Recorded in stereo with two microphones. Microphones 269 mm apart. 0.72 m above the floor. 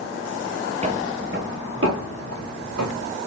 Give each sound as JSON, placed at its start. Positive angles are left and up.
{"t": 0.8, "sound": "footsteps", "side_deg": -25, "distance_m": 0.8}